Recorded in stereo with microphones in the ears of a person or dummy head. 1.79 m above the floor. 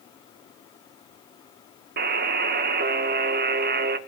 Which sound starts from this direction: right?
A buzzer, at 2.0 s.